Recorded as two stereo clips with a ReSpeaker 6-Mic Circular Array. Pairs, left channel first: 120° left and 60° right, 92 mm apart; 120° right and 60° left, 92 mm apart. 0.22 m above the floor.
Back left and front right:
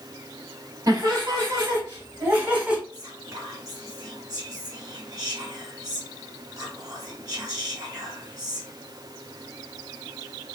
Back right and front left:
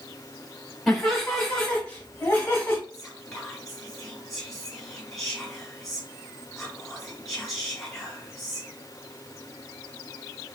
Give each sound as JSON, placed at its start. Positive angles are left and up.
{"t": 0.9, "sound": "laughter", "azimuth_deg": -35, "distance_m": 1.4}
{"t": 2.9, "sound": "whispering", "azimuth_deg": -45, "distance_m": 1.6}